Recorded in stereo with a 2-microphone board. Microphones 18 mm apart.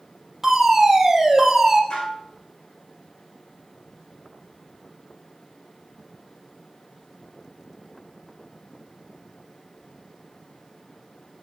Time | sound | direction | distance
0.4 | a fire alarm | 25° right (ahead or behind) | 4.5 m
1.9 | dishes clattering | 80° left | 5.5 m